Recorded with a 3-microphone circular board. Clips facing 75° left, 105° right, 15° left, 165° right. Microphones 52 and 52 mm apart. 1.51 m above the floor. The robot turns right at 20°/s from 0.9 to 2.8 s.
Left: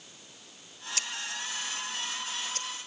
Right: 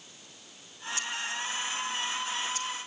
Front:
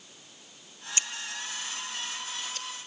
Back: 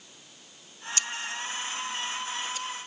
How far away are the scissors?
About 1.3 m.